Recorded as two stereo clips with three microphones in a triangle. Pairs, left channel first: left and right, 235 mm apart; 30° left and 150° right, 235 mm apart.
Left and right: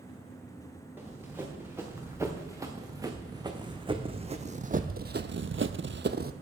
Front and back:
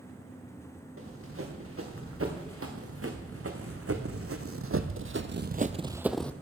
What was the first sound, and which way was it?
Running footsteps, 170° right.